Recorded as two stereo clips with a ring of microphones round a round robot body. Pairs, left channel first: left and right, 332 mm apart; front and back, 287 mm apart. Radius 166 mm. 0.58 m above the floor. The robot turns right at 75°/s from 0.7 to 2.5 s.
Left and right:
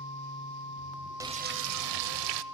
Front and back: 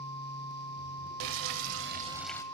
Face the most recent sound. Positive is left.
turn(degrees=-75)